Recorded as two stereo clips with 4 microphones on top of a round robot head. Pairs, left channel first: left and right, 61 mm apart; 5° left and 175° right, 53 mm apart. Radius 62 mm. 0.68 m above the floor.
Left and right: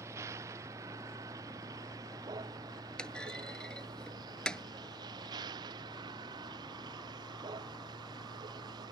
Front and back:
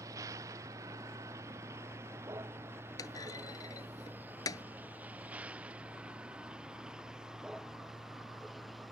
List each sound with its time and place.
0.0 s a vehicle: 140° right; by 8.9 s 90° right
3.0 s a clunk: 10° left